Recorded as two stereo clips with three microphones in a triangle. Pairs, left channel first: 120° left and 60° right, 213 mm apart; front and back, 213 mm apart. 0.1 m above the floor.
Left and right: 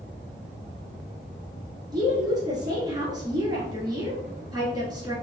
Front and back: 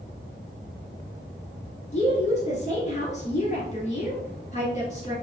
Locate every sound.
1.9 s a woman speaking: 5° right, 1.8 m